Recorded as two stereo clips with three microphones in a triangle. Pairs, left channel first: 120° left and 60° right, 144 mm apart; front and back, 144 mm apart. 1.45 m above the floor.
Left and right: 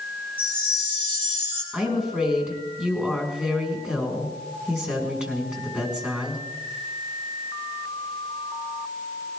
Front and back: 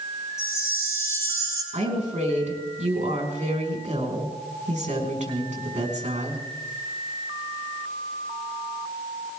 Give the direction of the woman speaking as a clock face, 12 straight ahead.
5 o'clock.